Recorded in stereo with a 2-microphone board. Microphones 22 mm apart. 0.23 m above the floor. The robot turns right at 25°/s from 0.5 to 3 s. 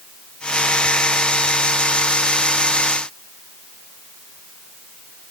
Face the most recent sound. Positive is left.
No sound to turn to.